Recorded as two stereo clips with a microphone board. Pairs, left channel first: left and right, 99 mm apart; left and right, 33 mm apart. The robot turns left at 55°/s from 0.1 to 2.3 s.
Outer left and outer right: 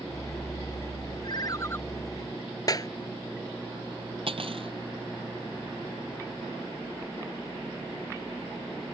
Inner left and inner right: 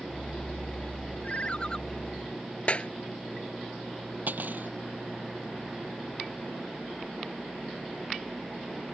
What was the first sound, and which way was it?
A ringtone, 50° left.